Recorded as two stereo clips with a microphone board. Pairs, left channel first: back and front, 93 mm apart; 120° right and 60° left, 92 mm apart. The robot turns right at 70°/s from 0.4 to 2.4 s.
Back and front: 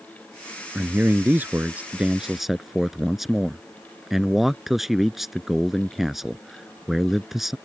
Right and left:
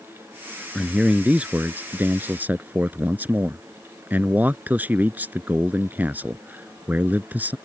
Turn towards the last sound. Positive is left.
turn(degrees=85)